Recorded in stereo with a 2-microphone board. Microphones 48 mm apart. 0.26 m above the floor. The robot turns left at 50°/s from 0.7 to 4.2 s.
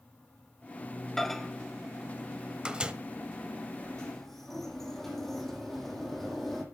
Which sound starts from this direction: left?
A sliding door, at 3.8 s.